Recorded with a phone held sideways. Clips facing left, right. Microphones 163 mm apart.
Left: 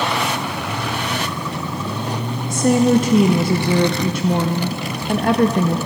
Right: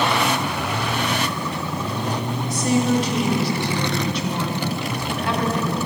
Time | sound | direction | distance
2.5 | a woman speaking | 50° left (ahead or behind) | 0.6 m